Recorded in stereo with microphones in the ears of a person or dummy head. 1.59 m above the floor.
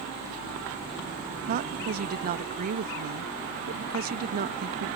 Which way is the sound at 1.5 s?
45° right (ahead or behind).